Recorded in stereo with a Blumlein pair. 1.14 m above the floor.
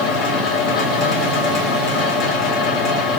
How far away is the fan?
About 0.9 m.